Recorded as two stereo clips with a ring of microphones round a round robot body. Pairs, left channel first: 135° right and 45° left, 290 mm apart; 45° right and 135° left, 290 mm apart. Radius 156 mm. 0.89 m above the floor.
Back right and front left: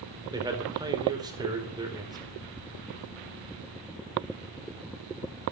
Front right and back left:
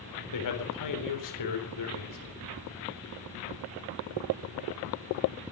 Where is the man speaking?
30° right, 4 m.